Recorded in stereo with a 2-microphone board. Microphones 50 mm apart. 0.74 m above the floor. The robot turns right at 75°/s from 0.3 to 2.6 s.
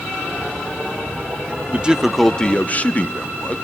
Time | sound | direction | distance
1.7 | a man speaking | 35° right | 0.8 m